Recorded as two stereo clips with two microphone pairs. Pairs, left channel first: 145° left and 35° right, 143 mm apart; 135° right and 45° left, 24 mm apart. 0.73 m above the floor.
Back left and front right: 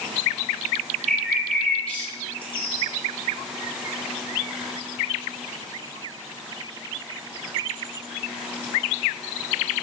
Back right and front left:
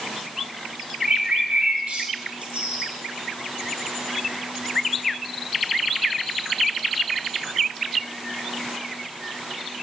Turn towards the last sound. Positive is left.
turn(degrees=60)